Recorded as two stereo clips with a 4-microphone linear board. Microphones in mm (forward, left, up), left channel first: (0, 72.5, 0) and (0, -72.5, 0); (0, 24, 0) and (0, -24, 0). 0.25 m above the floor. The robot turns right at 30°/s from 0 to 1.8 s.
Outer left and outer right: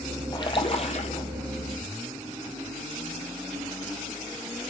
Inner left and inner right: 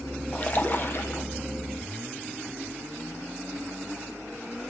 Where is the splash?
30° left (ahead or behind), 1.4 m; by 1.2 s 60° left (ahead or behind), 1.4 m.